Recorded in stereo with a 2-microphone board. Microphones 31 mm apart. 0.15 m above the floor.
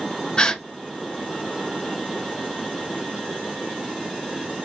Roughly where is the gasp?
Left.